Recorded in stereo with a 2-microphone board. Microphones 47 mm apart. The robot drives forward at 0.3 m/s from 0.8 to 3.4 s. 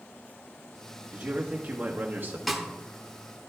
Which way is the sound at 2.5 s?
Centre (ahead or behind).